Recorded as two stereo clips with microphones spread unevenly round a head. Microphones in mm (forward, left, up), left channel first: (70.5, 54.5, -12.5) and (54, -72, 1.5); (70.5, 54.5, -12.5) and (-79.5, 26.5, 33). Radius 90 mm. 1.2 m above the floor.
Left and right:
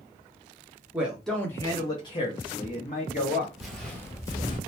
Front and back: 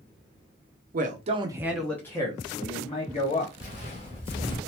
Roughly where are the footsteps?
Ahead right.